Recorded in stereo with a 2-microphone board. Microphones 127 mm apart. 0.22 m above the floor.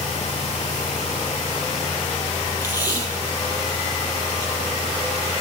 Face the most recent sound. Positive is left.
turn(degrees=30)  # may be behind; listen again after turning